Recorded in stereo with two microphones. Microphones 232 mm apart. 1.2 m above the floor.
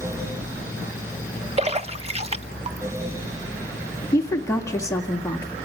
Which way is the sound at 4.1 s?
15° left (ahead or behind).